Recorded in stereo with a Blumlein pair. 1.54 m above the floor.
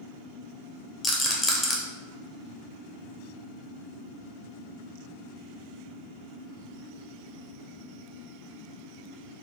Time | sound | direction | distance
1.0 | a rattle | 20° left | 0.8 m